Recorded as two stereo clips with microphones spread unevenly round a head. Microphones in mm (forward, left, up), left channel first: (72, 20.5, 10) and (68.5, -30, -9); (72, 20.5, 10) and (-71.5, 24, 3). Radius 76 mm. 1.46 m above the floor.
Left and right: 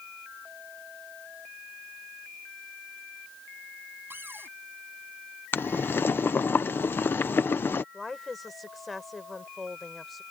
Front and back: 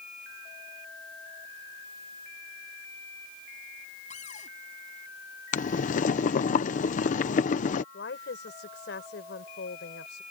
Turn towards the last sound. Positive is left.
turn(degrees=0)